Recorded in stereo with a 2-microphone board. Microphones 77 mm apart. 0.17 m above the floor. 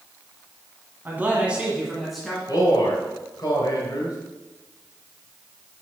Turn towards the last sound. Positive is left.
turn(degrees=55)  # may be behind; listen again after turning